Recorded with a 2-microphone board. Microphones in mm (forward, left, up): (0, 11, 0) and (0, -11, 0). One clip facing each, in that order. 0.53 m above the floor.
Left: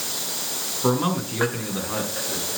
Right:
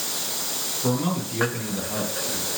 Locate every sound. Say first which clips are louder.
0.8 s a man speaking: left 4 dB; 50° left (ahead or behind), 7.5 m